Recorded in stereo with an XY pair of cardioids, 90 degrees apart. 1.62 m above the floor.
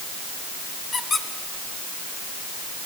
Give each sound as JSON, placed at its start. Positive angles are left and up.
{"t": 0.9, "sound": "a squeak", "azimuth_deg": 50, "distance_m": 4.0}